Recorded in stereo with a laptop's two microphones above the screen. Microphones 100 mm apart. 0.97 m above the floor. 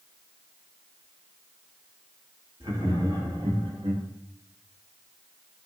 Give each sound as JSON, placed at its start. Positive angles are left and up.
{"t": 2.6, "sound": "laughter", "side_deg": -50, "distance_m": 2.0}